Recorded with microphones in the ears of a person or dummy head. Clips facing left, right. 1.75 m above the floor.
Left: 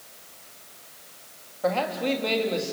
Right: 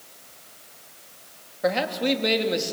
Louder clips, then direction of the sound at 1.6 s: Right 2 dB; 20° right (ahead or behind).